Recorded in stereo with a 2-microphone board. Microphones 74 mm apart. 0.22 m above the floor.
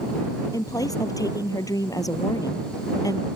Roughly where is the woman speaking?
Left.